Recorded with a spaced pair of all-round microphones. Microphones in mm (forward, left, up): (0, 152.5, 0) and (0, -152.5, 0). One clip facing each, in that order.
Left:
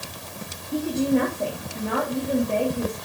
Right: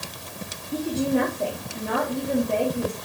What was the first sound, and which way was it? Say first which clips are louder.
A woman speaking: left 2 dB; centre (ahead or behind).